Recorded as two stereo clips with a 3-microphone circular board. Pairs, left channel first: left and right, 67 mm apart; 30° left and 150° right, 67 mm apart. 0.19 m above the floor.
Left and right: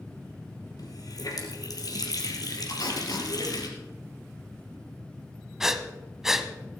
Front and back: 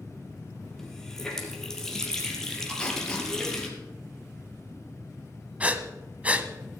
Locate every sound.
0.8 s a running tap: 115° left, 3 m
2.7 s tape being pulled: 105° left, 3.5 m
5.6 s breathing: 165° right, 1.2 m